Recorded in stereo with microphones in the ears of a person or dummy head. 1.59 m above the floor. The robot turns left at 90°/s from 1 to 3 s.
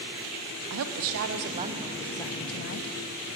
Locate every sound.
0.7 s a woman speaking: 95° right, 0.6 m; by 2.9 s 100° left, 0.6 m